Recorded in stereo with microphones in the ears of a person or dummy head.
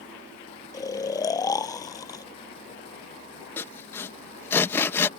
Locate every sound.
0.7 s snoring: 15° left (ahead or behind)
3.6 s sawing: 20° left (ahead or behind)